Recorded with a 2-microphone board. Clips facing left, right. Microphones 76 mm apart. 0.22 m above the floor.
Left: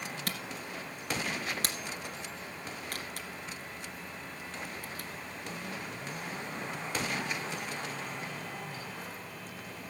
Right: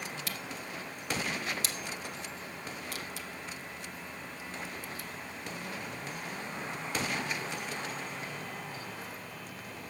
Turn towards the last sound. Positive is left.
turn(degrees=55)  # may be behind; listen again after turning